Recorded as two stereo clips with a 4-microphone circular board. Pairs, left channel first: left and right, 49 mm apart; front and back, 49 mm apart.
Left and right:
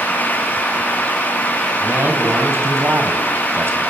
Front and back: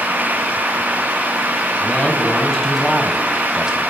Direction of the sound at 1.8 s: 65° right.